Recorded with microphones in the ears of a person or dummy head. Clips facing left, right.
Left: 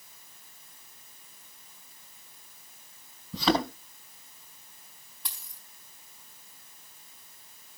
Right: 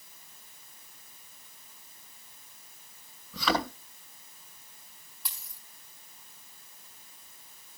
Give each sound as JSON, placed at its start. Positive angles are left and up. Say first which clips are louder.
{"t": 3.3, "sound": "a thud", "louder": "left 4 dB", "side_deg": 20, "distance_m": 8.5}
{"t": 5.2, "sound": "a dropped coin", "louder": "even", "side_deg": -5, "distance_m": 4.0}